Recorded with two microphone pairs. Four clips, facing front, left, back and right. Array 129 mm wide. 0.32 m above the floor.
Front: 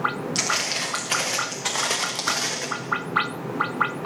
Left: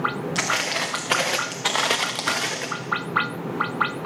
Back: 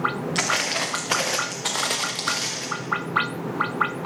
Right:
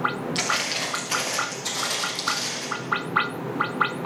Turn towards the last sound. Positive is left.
turn(degrees=60)